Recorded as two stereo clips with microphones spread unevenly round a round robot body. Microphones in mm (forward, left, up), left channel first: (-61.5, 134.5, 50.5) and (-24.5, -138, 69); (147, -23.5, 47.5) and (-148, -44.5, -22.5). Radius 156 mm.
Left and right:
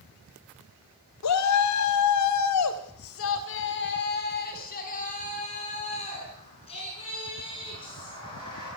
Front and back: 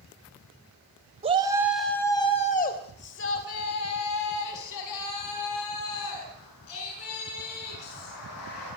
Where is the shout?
115° left, 2.5 m; by 8.7 s 20° left, 11 m.